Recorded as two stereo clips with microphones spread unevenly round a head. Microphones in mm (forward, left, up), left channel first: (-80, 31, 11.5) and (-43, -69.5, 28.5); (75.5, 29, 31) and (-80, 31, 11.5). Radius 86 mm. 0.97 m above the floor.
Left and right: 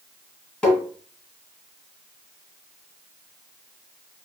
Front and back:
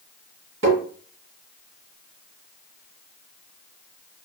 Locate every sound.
0.6 s tapping: 165° right, 1.8 m